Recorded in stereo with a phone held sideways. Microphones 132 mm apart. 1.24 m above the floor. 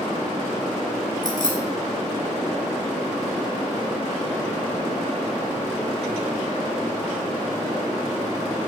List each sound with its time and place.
1.2 s keys jangling: 75° left (ahead or behind), 1.5 m